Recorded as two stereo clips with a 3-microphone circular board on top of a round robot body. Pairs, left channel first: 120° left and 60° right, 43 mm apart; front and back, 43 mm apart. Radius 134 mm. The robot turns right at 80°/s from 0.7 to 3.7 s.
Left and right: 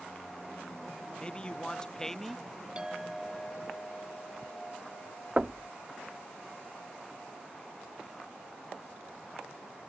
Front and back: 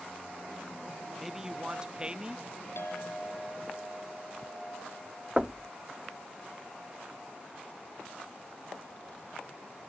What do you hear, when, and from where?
1.2 s a man speaking: 105° left; by 2.5 s 150° right
2.8 s a clink: 5° left; by 5.3 s 80° left
5.4 s knocking: 115° right